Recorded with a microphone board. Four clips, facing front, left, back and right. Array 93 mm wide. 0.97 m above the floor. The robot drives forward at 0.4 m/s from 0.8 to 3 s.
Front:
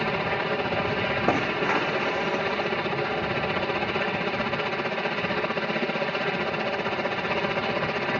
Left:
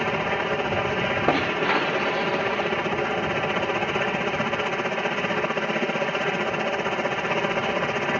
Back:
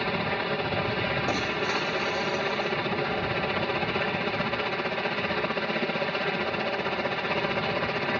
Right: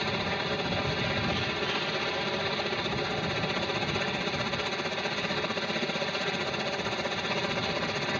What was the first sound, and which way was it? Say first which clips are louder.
A helicopter: left 7 dB, front 2 dB; 70° left.